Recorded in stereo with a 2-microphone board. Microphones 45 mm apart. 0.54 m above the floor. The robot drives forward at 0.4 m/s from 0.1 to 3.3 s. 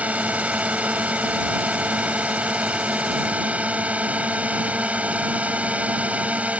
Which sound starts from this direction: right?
A drone, at 0.0 s.